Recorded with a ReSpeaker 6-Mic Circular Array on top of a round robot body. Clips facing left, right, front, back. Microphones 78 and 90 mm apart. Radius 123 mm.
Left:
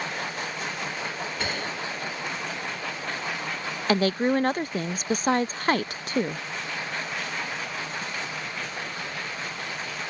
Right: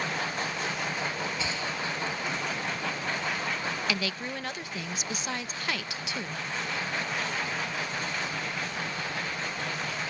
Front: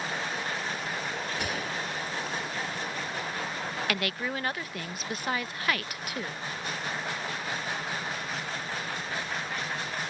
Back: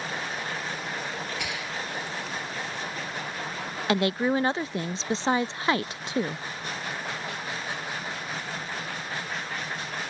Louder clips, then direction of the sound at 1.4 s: Left 2 dB, front 1 dB; 50° left.